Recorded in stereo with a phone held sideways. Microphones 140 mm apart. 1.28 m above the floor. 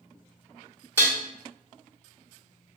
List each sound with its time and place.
1.0 s dishes clattering: 15° right (ahead or behind), 1.5 m